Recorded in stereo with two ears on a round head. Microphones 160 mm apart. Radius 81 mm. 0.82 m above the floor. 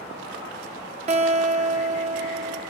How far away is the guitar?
About 1.3 m.